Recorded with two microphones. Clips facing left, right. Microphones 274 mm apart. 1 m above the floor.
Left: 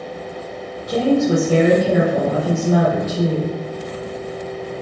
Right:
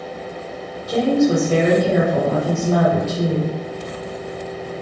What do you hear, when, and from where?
0.9 s a woman speaking: 20° left (ahead or behind), 1.5 m